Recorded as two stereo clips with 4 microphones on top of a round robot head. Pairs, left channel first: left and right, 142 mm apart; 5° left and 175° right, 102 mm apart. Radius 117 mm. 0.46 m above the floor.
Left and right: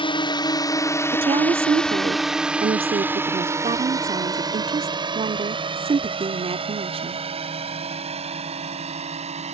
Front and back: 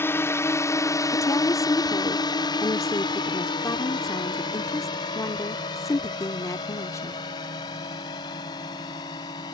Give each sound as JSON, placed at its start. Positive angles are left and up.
{"t": 0.0, "sound": "a drone", "azimuth_deg": 60}
{"t": 1.1, "sound": "a woman speaking", "azimuth_deg": -50}